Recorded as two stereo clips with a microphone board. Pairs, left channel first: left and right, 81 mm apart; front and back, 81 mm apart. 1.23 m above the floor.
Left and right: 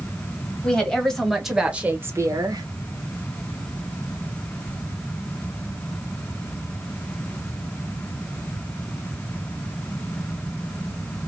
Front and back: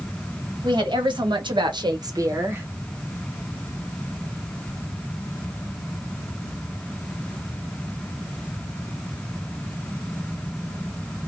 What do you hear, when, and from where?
0.6 s a woman speaking: 165° left, 1.4 m; by 2.7 s 115° right, 0.8 m